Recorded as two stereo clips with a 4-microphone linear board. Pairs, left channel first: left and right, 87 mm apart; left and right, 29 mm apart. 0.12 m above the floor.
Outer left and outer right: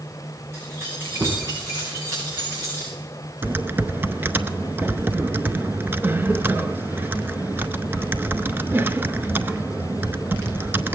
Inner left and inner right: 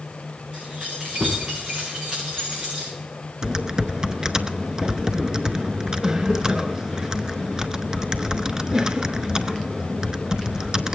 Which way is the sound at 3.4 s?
25° right (ahead or behind).